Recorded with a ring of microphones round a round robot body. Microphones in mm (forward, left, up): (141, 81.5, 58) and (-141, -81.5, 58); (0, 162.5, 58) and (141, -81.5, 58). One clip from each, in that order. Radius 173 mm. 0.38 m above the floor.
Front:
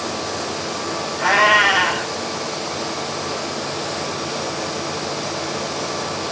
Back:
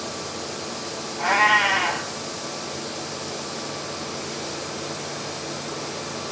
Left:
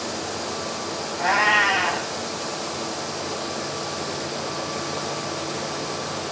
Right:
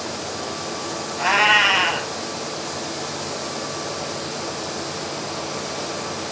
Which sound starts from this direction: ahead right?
A cat meowing, at 1.2 s.